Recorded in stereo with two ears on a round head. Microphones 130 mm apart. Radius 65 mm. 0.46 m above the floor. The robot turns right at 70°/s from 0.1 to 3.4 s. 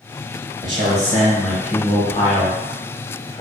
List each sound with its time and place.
0.6 s a man speaking: 55° right, 1.1 m; by 3.4 s 140° left, 1.1 m